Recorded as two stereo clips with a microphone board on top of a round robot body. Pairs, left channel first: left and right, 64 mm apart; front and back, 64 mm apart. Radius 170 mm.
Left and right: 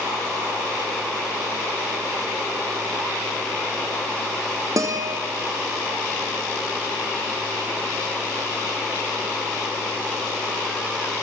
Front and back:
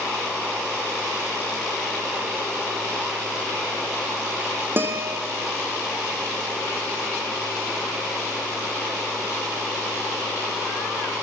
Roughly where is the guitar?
Behind right.